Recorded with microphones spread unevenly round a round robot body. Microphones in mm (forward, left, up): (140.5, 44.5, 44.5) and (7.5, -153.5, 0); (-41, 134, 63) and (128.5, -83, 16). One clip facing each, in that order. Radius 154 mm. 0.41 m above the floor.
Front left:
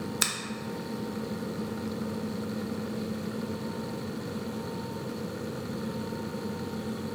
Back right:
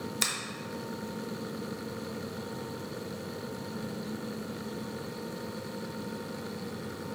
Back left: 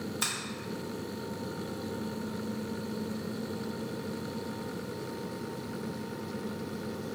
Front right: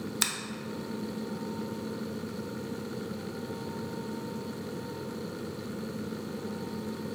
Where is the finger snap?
30° right, 0.7 m.